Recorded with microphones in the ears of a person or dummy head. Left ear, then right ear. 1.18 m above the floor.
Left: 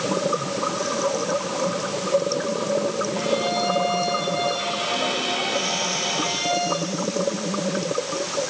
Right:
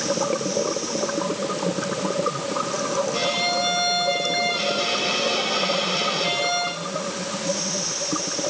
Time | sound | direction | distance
3.1 | a violin | 85° right | 7.5 m